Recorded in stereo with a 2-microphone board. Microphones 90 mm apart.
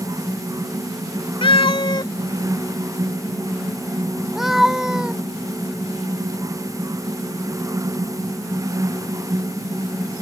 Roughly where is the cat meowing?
Left.